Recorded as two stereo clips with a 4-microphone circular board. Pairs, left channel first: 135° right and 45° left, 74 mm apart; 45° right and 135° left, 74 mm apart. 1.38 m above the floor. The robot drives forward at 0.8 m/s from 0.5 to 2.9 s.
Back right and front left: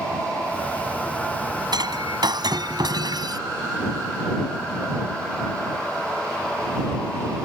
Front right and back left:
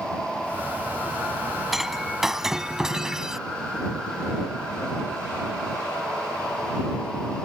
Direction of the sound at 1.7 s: 45° left.